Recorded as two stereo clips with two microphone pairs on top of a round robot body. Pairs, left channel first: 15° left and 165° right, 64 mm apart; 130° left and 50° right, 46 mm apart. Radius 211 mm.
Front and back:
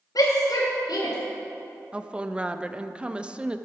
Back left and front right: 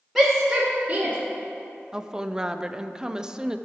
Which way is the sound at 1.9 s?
120° right.